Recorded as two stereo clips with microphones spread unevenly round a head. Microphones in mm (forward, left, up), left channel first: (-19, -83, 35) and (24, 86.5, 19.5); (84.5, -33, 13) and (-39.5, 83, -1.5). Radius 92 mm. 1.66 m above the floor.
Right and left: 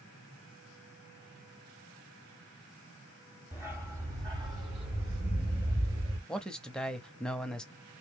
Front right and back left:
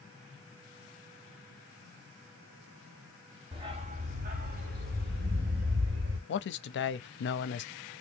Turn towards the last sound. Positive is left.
turn(degrees=-15)